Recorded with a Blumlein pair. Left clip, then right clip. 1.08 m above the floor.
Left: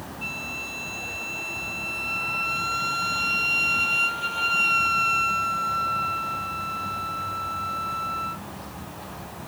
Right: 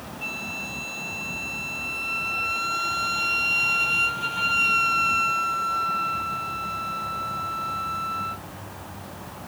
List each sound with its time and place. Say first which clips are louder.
0.2 s a flute: even; 5° right